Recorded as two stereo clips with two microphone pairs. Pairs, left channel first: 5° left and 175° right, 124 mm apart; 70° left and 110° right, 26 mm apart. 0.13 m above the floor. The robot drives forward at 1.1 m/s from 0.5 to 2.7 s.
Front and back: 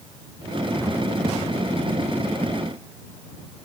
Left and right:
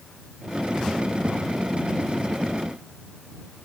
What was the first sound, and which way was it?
Only background noise.